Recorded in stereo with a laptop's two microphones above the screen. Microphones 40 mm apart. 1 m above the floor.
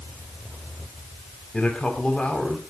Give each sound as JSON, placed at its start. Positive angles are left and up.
{"t": 1.5, "sound": "a man speaking", "side_deg": 25, "distance_m": 4.0}